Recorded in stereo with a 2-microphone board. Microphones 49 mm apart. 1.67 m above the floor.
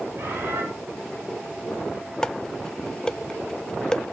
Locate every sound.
0.1 s a bird: 50° right (ahead or behind), 7.5 m
2.2 s dishes clattering: 15° left (ahead or behind), 0.6 m